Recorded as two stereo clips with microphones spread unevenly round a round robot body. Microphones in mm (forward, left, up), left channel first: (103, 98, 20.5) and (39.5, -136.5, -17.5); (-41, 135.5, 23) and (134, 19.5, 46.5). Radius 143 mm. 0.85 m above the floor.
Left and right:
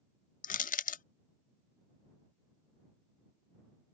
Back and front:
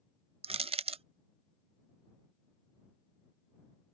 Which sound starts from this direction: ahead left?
Crushing, at 0.4 s.